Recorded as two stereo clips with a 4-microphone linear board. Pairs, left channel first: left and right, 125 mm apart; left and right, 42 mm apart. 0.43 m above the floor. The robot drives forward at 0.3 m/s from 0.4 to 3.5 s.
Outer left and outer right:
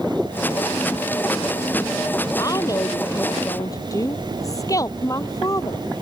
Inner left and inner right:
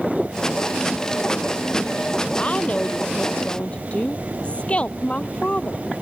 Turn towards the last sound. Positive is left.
turn(degrees=30)  # may be behind; listen again after turning